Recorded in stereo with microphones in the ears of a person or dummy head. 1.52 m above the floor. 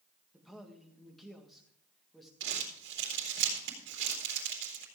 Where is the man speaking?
5° left (ahead or behind), 1.8 m.